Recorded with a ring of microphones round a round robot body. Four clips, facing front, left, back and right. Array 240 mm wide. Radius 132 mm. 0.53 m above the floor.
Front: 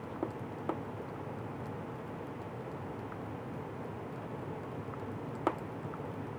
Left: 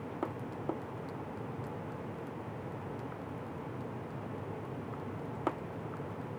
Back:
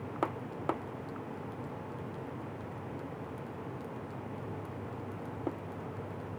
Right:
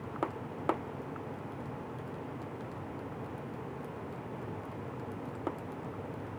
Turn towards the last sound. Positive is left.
No sound to turn to.